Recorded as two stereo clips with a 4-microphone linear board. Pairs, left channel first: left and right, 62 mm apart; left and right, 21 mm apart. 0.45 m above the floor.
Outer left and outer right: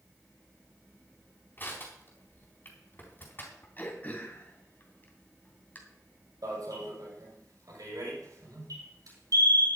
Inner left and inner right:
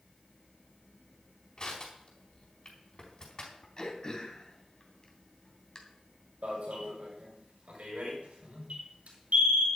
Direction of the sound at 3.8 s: 30° left (ahead or behind).